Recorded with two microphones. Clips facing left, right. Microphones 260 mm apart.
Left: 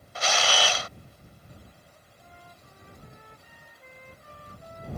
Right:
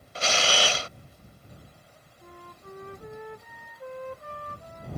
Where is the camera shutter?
30° right (ahead or behind).